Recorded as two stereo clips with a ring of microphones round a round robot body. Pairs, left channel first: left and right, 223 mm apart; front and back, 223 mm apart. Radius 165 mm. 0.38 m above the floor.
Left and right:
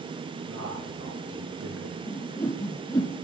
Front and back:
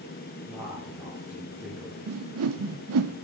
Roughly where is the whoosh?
Behind.